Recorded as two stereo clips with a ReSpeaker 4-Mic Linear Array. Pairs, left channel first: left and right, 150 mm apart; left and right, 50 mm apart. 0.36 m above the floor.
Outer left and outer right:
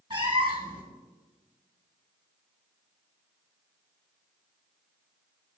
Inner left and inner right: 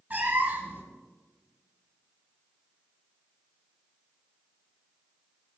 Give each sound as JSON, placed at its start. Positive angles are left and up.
{"t": 0.1, "sound": "a cat meowing", "side_deg": -35, "distance_m": 1.5}